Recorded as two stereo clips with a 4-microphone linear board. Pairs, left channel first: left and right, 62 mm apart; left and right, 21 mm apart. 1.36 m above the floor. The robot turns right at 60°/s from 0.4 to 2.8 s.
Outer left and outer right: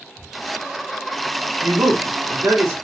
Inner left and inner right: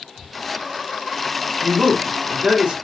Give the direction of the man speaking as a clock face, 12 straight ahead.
4 o'clock.